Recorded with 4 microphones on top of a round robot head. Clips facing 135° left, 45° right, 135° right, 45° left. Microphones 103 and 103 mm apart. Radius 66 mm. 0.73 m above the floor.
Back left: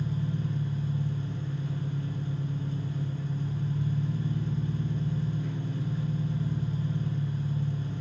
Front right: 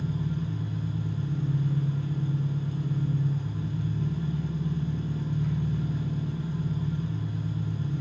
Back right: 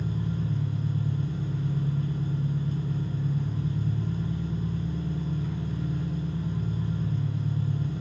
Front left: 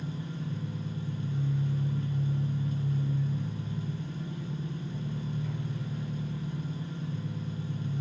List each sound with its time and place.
0.0 s an engine running: 80° right, 3 m